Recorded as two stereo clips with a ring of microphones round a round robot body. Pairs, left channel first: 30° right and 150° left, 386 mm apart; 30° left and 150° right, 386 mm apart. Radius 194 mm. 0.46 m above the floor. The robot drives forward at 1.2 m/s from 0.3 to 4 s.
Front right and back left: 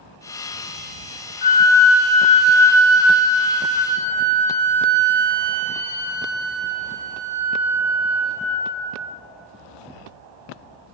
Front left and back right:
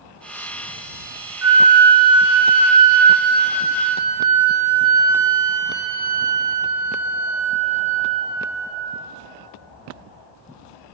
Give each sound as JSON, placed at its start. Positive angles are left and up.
{"t": 1.4, "sound": "a flute", "azimuth_deg": -75, "distance_m": 1.3}